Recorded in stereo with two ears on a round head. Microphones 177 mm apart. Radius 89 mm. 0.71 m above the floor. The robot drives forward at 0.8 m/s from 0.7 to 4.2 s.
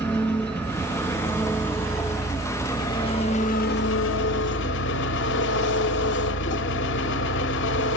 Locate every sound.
0.0 s an engine running: 10° left (ahead or behind), 2.5 m; by 8.0 s 60° left (ahead or behind), 0.5 m